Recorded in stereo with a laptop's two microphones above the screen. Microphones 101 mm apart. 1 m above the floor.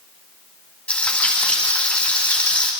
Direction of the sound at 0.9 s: 10° left (ahead or behind).